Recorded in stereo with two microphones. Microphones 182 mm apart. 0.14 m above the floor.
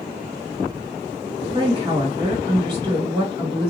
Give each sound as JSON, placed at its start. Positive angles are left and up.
{"t": 1.5, "sound": "a woman speaking", "side_deg": -25, "distance_m": 1.8}